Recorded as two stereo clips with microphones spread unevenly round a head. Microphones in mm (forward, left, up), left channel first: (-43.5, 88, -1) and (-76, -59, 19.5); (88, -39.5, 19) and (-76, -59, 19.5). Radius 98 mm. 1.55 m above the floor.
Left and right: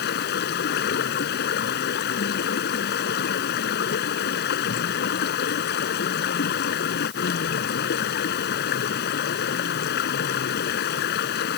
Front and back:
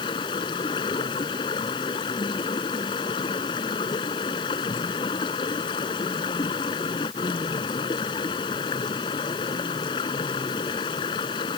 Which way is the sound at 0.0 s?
75° left.